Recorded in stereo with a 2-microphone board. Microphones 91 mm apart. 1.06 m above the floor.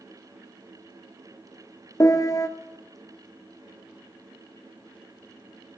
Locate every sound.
2.0 s a piano: 35° left (ahead or behind), 0.7 m